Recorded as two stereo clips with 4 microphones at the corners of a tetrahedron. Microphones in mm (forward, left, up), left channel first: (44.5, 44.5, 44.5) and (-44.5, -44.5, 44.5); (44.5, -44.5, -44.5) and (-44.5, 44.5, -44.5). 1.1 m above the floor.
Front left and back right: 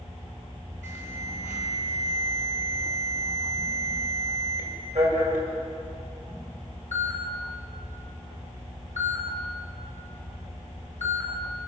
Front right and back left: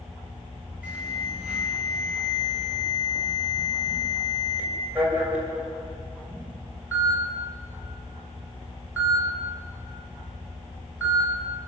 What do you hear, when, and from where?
0.8 s an alarm: 145° right, 7.5 m